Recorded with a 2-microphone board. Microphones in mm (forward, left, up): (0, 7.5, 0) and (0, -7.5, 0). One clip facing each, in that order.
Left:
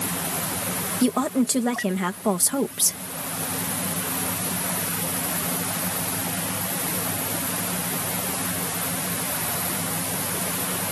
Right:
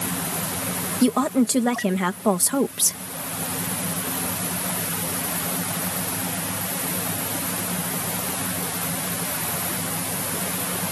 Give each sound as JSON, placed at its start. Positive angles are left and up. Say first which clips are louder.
{"t": 1.0, "sound": "a woman speaking", "louder": "right 2 dB", "side_deg": -10}